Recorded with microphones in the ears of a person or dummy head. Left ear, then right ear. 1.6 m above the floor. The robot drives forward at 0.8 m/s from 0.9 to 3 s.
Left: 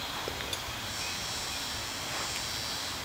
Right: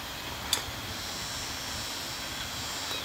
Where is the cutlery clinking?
20° right (ahead or behind), 0.8 m.